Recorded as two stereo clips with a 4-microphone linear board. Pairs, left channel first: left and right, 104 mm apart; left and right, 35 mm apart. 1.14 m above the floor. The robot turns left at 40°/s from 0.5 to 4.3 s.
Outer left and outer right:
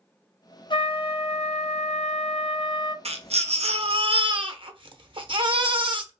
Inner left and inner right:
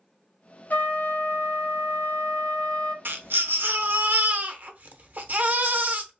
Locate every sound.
0.7 s a trumpet: 130° left, 0.5 m; by 3.0 s 40° left, 0.5 m
3.0 s a baby crying: 75° right, 0.5 m; by 6.1 s 125° right, 0.5 m